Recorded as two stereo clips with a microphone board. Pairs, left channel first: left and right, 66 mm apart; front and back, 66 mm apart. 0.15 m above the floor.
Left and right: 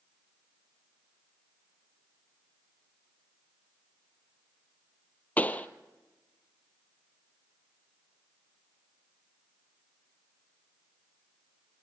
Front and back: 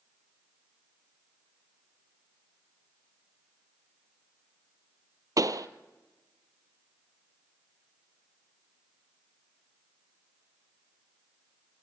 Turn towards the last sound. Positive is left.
turn(degrees=155)